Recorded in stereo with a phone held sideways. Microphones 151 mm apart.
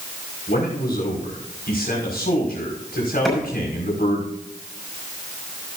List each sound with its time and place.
0.5 s a man speaking: 75° left (ahead or behind), 5.5 m
3.2 s a clap: centre (ahead or behind), 6 m